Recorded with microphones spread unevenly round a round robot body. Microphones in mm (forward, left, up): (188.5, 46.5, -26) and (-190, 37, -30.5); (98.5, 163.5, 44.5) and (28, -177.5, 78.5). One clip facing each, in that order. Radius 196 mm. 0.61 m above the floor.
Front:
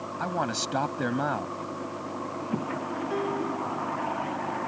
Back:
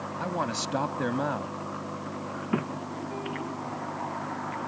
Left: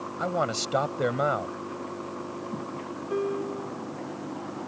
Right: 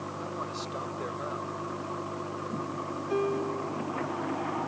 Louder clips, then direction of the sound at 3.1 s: Front 8 dB, even; 25° right.